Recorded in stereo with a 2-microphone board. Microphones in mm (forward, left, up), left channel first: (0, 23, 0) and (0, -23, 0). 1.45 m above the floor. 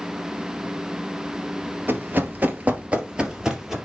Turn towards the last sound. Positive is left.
turn(degrees=-5)  # may be behind; listen again after turning